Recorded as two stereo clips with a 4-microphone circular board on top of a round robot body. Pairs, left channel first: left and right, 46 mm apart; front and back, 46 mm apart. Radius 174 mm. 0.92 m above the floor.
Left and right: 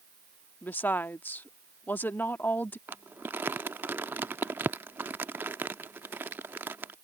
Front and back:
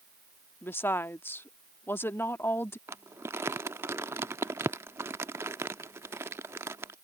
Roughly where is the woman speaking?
Ahead left.